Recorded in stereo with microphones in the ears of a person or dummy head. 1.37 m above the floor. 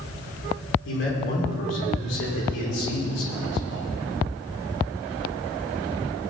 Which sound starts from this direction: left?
A man speaking, at 0.8 s.